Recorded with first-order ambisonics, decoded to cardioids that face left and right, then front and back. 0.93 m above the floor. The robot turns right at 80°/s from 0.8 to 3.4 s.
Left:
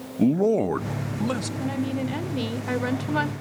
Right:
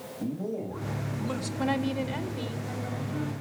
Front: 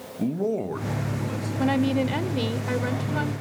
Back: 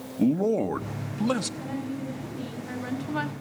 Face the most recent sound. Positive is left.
turn(degrees=115)